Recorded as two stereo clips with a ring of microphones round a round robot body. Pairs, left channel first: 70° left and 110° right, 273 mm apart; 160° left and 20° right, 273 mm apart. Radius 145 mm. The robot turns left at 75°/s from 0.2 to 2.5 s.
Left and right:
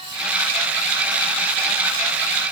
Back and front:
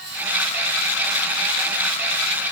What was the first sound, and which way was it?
Only background noise.